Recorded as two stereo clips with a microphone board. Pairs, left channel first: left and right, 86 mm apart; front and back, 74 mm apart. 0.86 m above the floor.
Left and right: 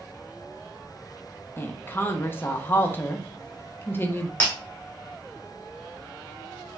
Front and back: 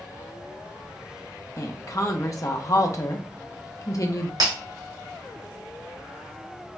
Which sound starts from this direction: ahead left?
A woman speaking, at 1.6 s.